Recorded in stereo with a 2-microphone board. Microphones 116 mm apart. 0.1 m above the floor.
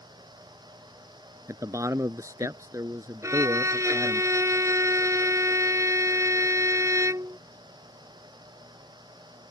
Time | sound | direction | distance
1.5 | a man speaking | 30° right (ahead or behind) | ?
3.2 | a violin | 30° right (ahead or behind) | ?